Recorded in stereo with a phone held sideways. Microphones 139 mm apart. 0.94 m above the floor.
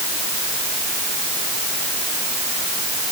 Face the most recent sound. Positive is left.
No sound to turn to.